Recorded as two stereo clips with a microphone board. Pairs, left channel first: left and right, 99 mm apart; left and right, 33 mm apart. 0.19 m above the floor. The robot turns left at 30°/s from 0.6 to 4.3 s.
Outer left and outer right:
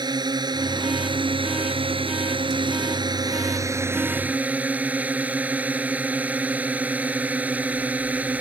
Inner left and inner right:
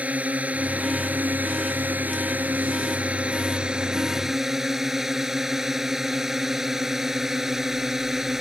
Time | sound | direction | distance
0.0 | a drone | 50° right | ?